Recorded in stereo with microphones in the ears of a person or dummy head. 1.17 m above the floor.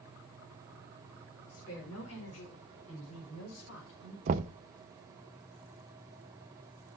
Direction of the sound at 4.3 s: 45° right (ahead or behind).